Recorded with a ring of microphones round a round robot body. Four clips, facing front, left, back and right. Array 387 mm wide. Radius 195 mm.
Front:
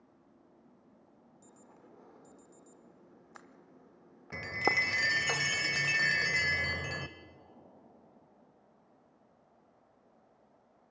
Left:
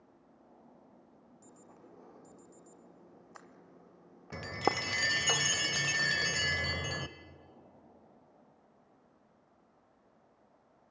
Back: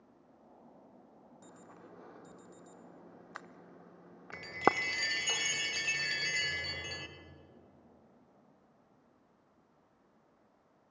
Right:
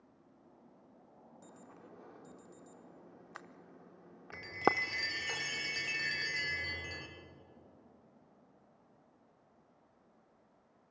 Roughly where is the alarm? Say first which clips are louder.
Right 1 dB, back 4 dB; behind.